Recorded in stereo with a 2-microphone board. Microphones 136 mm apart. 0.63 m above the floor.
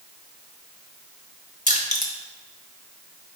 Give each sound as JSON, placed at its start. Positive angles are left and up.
{"t": 1.7, "sound": "crushing", "side_deg": 60, "distance_m": 0.8}